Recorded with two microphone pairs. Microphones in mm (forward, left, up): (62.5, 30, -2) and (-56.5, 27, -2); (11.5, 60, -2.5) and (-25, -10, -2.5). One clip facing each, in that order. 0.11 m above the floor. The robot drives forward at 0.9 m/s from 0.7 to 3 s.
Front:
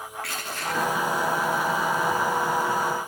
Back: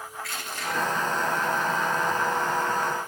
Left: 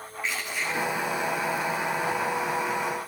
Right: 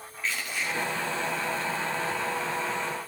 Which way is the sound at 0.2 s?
10° right.